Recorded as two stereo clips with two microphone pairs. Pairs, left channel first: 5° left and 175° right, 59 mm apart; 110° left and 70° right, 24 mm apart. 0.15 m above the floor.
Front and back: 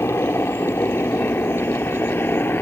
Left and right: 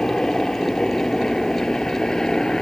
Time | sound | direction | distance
0.0 | a helicopter | 45° left | ?